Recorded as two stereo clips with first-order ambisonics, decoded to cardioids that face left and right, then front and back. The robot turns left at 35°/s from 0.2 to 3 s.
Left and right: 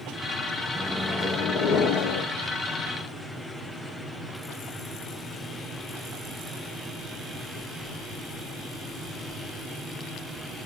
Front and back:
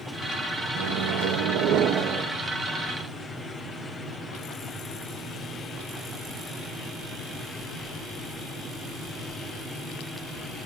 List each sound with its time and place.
0.8 s a microwave: 175° left, 1.0 m; by 2.3 s 120° left, 1.0 m